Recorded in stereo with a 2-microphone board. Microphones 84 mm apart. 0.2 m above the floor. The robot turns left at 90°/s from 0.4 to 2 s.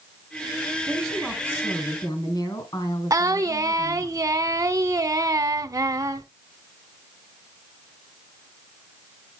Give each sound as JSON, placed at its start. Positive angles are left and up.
{"t": 0.9, "sound": "a woman speaking", "azimuth_deg": -160, "distance_m": 2.5}
{"t": 3.1, "sound": "singing", "side_deg": -45, "distance_m": 0.6}